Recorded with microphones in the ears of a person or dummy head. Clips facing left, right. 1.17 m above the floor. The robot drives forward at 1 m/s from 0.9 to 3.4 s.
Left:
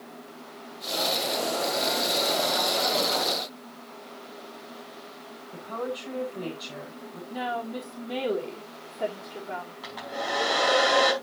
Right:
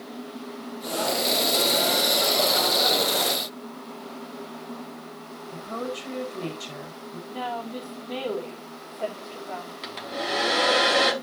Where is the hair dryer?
35° right (ahead or behind), 5 m.